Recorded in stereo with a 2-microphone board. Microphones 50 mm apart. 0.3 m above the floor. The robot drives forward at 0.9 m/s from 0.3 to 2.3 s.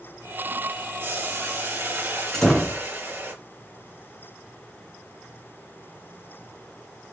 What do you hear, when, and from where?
1.0 s boiling: 50° right (ahead or behind), 5 m; by 3.3 s 45° right (ahead or behind), 6 m
2.3 s a door slam: 5° left (ahead or behind), 2.5 m